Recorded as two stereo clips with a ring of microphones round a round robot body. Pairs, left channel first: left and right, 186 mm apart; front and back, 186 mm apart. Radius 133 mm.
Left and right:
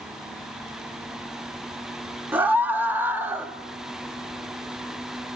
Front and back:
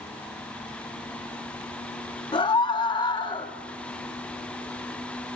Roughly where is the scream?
Ahead.